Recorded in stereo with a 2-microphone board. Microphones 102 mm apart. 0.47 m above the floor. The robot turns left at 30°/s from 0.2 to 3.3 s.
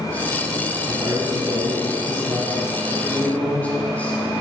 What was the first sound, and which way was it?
A man speaking, 120° right.